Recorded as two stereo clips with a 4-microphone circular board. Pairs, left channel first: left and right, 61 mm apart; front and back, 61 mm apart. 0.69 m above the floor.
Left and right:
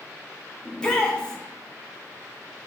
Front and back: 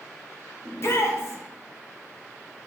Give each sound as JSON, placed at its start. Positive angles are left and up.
{"t": 0.7, "sound": "a shout", "azimuth_deg": 20, "distance_m": 0.9}